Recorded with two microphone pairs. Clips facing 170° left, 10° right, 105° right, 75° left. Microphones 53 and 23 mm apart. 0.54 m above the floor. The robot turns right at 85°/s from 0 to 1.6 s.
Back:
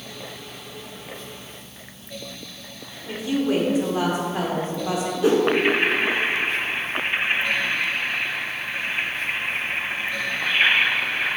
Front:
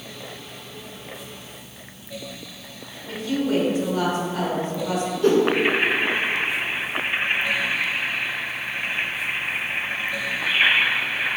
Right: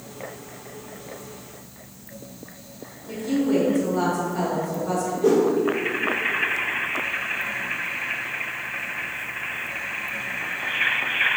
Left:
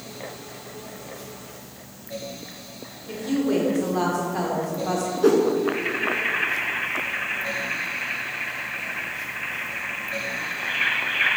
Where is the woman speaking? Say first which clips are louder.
Back 1 dB, right 1 dB; 105° left, 1.5 m.